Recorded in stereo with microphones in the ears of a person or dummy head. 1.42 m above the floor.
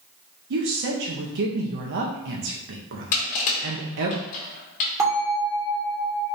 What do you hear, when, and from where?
0.5 s a woman speaking: 60° right (ahead or behind), 0.8 m
3.1 s crushing: 40° left (ahead or behind), 1.4 m
5.0 s a bell: 15° right (ahead or behind), 1.9 m